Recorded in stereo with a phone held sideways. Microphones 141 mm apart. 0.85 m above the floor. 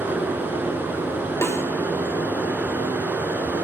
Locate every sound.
0.0 s running water: 15° right (ahead or behind), 0.9 m
1.4 s a snare drum: 20° left (ahead or behind), 1.3 m